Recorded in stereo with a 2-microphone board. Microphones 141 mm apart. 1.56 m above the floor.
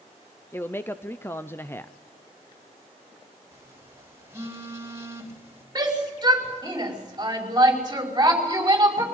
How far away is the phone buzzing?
About 3.5 m.